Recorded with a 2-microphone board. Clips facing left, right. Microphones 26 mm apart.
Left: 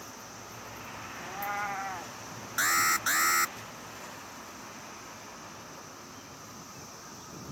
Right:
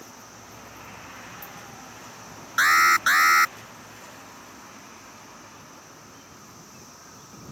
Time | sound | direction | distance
1.2 | a cat meowing | 85° left | ?
2.6 | an alarm | 40° right (ahead or behind) | ?